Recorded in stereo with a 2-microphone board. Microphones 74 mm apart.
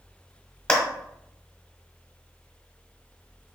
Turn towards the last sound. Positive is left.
turn(degrees=15)  # may be behind; listen again after turning